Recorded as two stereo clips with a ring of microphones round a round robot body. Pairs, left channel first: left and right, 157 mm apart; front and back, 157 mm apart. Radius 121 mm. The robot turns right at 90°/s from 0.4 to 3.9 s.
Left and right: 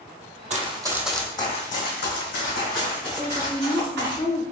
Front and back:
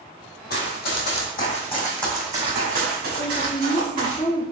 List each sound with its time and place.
0.5 s running footsteps: 55° right, 1.2 m; by 4.2 s 110° right, 3.5 m
3.2 s a woman speaking: 20° right, 1.7 m; by 4.4 s 45° left, 1.7 m